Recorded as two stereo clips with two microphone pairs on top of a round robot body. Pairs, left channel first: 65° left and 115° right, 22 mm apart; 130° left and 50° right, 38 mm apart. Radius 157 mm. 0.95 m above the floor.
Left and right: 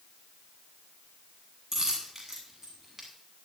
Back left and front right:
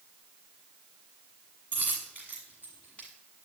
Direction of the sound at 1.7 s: 165° left.